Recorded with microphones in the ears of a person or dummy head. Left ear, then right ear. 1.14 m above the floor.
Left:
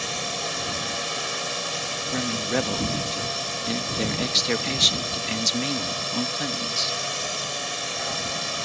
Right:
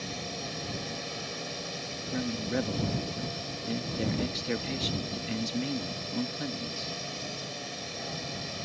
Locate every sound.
0.0 s a drone: 45° left (ahead or behind)
2.1 s a man speaking: 40° left (ahead or behind)